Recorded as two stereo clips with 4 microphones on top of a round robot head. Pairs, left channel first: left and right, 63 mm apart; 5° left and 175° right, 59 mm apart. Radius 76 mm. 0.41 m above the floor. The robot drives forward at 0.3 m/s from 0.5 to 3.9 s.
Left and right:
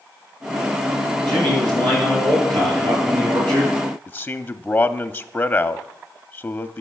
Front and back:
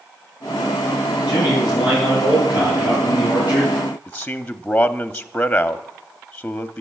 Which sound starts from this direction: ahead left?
A man speaking, at 4.1 s.